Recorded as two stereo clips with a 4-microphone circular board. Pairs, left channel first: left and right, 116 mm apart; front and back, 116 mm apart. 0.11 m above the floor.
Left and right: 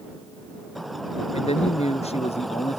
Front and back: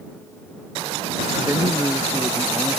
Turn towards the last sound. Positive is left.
turn(degrees=110)